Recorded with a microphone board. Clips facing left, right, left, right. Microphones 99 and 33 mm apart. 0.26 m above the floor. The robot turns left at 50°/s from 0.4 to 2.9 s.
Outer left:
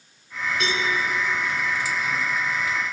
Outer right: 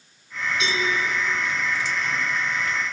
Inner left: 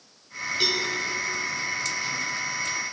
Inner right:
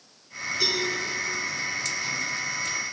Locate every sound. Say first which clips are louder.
0.6 s a cowbell: even, inner left 1 dB; 55° left (ahead or behind), 1.9 m